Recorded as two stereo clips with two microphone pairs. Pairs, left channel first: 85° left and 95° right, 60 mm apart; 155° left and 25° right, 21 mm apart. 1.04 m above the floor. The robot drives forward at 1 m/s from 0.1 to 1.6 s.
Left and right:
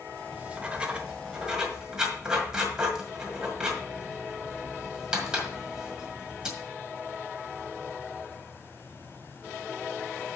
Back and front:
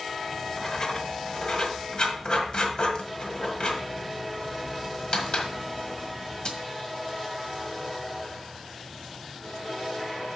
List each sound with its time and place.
0.3 s writing: 130° right, 0.7 m; by 6.5 s 170° right, 1.7 m